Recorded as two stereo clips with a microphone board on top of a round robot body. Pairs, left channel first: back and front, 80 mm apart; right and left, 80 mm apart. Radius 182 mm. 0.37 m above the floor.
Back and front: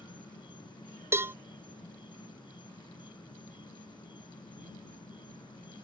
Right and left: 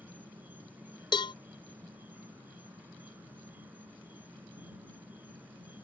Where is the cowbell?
65° right.